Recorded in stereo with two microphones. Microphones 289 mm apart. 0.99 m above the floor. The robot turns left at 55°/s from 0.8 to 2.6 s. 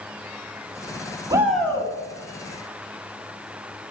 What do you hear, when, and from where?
1.3 s a shout: 160° right, 1.6 m; by 1.9 s 165° left, 1.6 m